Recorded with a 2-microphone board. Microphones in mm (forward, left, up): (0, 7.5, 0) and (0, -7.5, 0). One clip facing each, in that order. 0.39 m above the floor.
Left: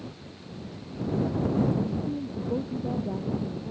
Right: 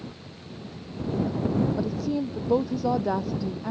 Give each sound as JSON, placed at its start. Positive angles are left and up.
{"t": 1.8, "sound": "a woman speaking", "side_deg": -85}